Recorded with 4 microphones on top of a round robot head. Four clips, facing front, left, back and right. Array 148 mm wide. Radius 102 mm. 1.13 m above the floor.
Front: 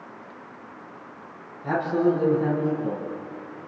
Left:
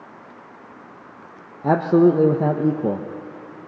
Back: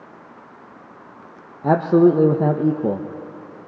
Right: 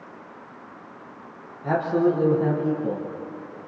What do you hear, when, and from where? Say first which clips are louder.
1.6 s a man speaking: left 6 dB, back 8 dB; 140° left, 0.9 m